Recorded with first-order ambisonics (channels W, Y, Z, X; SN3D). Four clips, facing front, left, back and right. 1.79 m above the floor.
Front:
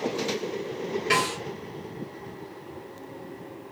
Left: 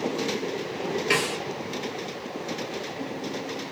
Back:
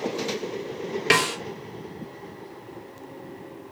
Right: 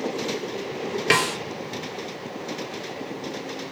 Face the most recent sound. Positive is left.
turn(degrees=-130)